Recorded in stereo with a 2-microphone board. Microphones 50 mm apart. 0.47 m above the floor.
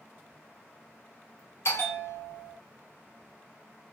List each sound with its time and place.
1.6 s a bell: 55° left (ahead or behind), 1.1 m